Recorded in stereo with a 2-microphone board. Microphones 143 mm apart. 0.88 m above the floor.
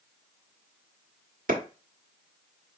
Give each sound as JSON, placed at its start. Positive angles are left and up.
{"t": 1.5, "sound": "a clap", "side_deg": -75, "distance_m": 1.4}